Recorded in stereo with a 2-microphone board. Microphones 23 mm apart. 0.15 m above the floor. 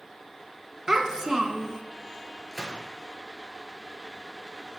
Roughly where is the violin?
I don't hear a violin.